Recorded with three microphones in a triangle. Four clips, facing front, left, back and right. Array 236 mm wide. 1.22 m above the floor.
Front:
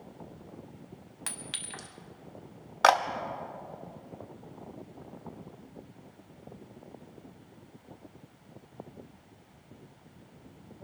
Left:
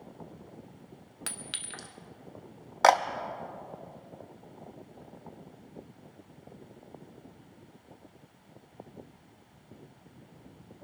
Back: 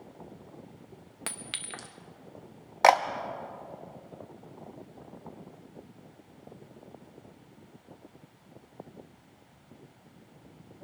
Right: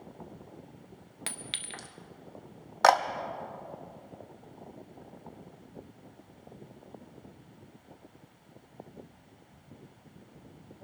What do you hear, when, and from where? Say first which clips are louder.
1.3 s a clink: right 1 dB, back 2 dB; 170° right, 0.9 m
2.8 s a camera shutter: even, back 2 dB; 165° left, 0.6 m